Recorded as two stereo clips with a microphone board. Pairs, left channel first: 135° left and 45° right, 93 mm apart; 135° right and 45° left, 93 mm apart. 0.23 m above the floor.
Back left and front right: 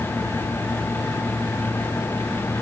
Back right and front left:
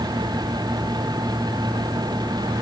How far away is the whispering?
No whispering in this recording.